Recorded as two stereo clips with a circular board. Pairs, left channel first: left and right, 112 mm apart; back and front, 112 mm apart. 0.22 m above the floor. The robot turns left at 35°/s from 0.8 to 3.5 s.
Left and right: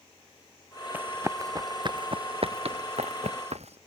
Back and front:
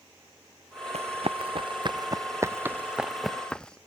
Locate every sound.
0.9 s running footsteps: 15° right; by 3.8 s 100° right